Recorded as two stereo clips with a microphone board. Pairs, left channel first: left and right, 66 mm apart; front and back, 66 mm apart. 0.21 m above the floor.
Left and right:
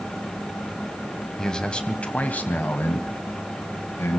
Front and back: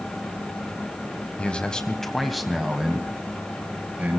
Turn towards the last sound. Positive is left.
turn(degrees=125)